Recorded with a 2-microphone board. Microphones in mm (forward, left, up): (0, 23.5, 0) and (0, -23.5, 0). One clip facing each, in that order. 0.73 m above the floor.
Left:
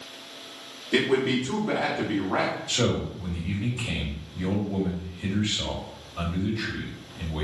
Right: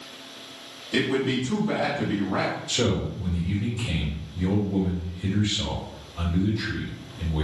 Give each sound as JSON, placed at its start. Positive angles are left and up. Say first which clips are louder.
{"t": 0.9, "sound": "a man speaking", "louder": "left 1 dB", "side_deg": 55, "distance_m": 1.7}
{"t": 2.7, "sound": "a man speaking", "louder": "right 1 dB", "side_deg": 40, "distance_m": 1.8}